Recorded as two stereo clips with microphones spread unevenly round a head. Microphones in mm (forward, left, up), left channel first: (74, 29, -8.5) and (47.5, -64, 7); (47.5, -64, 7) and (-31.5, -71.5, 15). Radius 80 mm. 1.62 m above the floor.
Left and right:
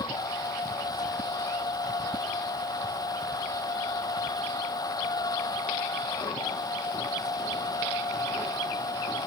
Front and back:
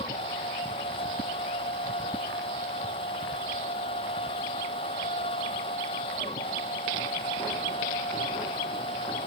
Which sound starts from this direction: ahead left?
A machine running, at 0.0 s.